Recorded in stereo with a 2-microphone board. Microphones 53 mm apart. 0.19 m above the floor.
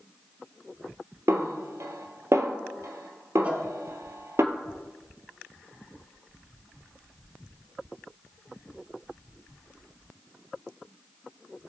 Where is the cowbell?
25° right (ahead or behind), 1.6 m.